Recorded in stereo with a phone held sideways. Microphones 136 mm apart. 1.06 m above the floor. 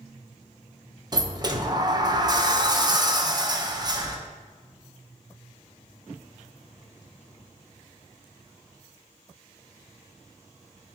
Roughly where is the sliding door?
Right.